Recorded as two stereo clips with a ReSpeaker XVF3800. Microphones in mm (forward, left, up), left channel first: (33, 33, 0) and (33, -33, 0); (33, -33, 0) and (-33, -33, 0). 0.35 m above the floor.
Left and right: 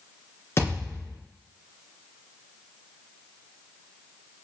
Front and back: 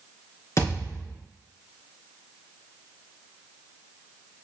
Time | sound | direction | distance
0.6 | a thud | 40° left | 2.5 m